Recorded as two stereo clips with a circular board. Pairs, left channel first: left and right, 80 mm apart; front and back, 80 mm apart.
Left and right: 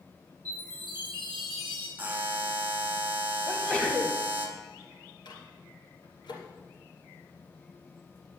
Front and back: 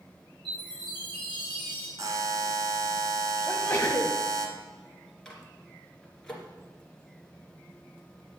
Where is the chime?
155° right, 3.5 m.